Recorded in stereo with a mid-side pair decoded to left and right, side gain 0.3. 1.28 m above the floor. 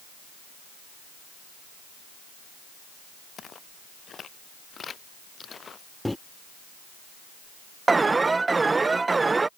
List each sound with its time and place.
3.4 s footsteps: 70° left; by 5.9 s 60° left
6.0 s a microwave: 10° left
7.9 s an alarm: 40° right